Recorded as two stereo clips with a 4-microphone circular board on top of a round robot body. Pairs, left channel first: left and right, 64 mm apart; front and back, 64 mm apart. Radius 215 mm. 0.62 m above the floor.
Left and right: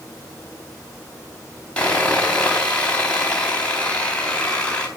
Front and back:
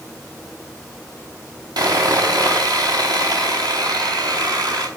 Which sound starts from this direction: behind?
Sawing, at 1.8 s.